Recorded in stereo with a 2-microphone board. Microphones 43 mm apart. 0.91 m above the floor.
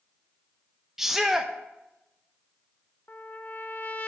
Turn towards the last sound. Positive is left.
turn(degrees=40)  # may be behind; listen again after turning